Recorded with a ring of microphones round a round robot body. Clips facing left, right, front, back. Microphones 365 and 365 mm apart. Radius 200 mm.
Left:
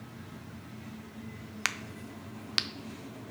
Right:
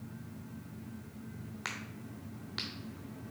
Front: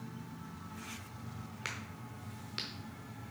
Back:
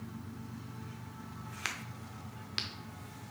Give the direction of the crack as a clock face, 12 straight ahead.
8 o'clock.